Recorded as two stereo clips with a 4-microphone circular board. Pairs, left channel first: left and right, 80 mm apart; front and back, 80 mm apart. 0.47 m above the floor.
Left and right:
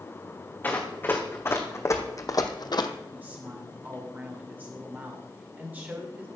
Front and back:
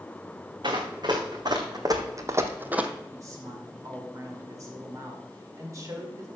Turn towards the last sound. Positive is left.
turn(degrees=-150)